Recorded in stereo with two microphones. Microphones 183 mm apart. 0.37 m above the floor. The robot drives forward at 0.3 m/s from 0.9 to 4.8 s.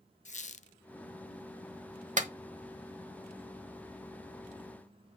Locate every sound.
0.2 s a squeak: 40° left (ahead or behind), 0.5 m
2.2 s a clap: 40° right (ahead or behind), 1.0 m; by 2.3 s 45° right (ahead or behind), 1.0 m